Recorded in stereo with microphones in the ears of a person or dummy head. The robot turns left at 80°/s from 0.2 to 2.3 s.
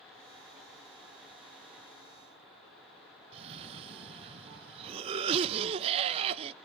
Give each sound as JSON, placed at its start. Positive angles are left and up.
{"t": 3.3, "sound": "a cough", "side_deg": -35, "distance_m": 0.7}